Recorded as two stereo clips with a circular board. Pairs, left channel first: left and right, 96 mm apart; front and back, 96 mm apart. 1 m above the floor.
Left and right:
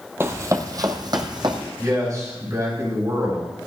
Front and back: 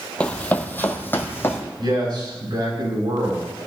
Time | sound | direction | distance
0.2 | running footsteps | 65° right | 1.1 m
1.8 | a man speaking | 140° right | 5.5 m